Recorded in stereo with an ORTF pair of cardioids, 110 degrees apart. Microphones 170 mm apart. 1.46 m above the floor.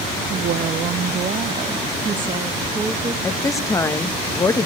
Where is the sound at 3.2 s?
20° left, 1.5 m.